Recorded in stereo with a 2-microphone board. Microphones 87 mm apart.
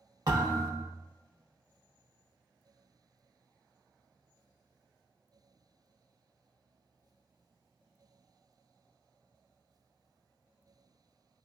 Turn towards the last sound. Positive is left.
turn(degrees=-40)  # may be behind; listen again after turning